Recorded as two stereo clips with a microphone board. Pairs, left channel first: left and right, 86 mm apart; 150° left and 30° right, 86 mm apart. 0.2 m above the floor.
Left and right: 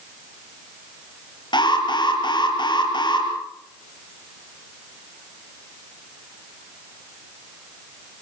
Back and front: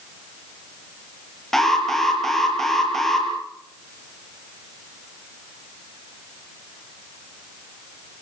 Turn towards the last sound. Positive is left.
turn(degrees=65)